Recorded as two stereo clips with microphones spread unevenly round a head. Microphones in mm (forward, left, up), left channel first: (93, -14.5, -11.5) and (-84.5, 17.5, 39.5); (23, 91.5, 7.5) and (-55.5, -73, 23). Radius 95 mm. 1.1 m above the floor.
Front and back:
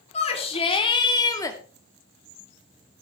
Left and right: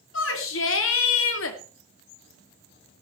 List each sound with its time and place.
0.1 s a shout: 45° left, 3.5 m; by 1.6 s 65° left, 2.5 m